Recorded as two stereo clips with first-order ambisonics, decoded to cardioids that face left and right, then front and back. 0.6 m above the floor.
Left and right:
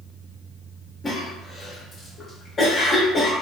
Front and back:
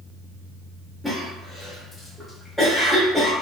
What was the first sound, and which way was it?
A cough, 90° left.